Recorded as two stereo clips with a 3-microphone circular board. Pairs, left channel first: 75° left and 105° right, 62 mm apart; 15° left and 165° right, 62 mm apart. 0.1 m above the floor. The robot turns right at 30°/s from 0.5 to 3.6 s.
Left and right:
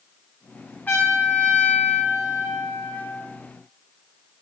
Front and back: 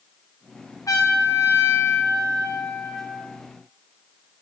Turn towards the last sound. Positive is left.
turn(degrees=105)